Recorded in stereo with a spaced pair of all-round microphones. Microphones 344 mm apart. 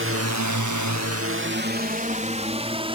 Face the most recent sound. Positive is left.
turn(degrees=-15)  # may be behind; listen again after turning